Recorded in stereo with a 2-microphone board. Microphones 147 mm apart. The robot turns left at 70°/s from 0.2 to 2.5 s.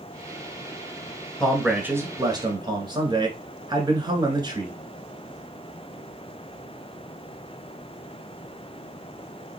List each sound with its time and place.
1.4 s a man speaking: 10° left, 1.2 m; by 4.7 s 70° right, 1.2 m